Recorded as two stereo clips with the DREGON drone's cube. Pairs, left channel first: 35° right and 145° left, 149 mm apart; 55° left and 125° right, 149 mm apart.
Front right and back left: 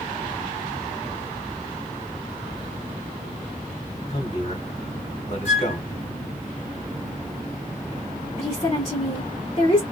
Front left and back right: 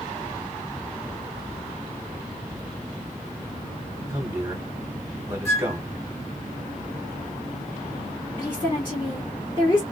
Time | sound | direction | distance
4.1 | a man speaking | 60° right | 1.9 m
5.5 | a flute | 35° right | 1.2 m
8.4 | a woman speaking | 10° left | 1.7 m